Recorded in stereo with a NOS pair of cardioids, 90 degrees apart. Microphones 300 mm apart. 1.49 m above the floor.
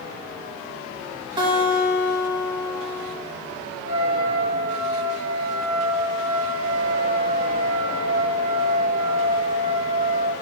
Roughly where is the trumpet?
Ahead right.